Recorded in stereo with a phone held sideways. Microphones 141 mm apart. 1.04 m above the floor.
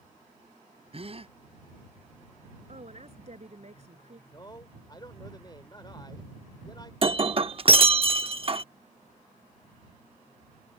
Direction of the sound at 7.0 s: 40° right (ahead or behind).